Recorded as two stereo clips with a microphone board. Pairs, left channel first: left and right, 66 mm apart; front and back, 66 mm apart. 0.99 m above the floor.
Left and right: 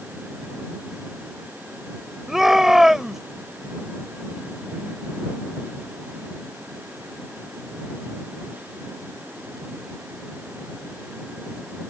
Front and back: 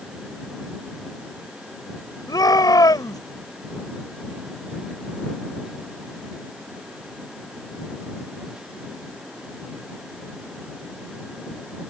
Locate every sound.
2.3 s a shout: 5° right